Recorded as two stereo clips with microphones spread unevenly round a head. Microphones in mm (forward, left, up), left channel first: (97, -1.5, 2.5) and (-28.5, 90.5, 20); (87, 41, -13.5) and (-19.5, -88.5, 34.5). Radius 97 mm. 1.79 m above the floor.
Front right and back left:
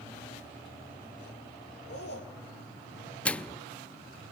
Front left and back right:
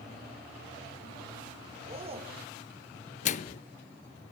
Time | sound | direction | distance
1.9 | a man speaking | 75° right | 6.5 m
3.2 | a microwave | 50° left | 0.6 m